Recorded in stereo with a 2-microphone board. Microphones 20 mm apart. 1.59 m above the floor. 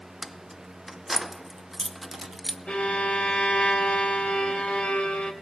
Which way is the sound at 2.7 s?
85° left.